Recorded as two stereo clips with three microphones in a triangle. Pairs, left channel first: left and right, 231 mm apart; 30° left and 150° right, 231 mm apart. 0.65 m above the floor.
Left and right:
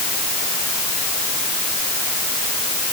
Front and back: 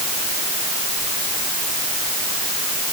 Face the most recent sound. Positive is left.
No sound to turn to.